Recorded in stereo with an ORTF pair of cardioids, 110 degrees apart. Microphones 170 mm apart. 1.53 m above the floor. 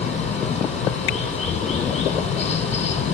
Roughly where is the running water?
Ahead left.